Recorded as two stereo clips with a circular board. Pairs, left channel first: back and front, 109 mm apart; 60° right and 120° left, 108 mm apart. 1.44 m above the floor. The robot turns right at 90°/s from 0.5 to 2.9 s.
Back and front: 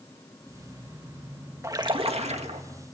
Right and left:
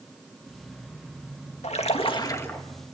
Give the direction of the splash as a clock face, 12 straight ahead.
2 o'clock.